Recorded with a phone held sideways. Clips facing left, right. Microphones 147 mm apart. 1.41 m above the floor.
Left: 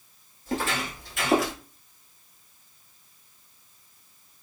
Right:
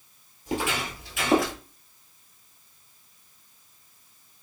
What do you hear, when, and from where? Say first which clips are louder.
0.5 s footsteps: even; 15° right (ahead or behind), 1.5 m; by 1.5 s 5° left (ahead or behind), 1.4 m